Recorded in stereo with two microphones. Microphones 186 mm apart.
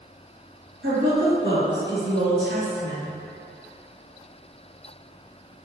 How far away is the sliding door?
No sliding door in this recording.